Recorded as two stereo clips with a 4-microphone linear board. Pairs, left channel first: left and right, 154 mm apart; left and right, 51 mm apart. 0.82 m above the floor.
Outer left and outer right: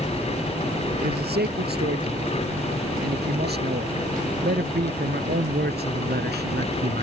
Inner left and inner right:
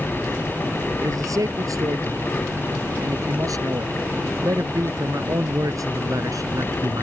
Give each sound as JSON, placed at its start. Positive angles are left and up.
{"t": 1.0, "sound": "a man speaking", "side_deg": -80}